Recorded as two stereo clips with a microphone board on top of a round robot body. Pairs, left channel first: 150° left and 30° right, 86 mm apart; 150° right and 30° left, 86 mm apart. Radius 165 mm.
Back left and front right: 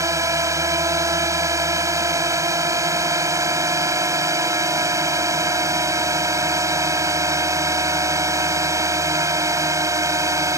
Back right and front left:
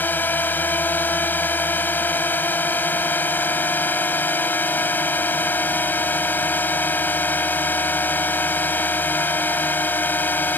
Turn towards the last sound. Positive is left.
turn(degrees=-80)